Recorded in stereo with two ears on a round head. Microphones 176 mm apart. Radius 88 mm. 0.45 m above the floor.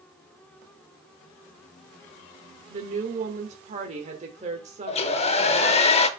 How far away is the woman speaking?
About 1.1 m.